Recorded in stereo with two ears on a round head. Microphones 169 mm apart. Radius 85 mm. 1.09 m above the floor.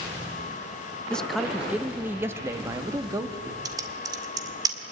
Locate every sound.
1.1 s a man speaking: 5° left (ahead or behind), 0.9 m; by 3.5 s 20° right (ahead or behind), 2 m
3.6 s typing on a keyboard: 20° right (ahead or behind), 1.9 m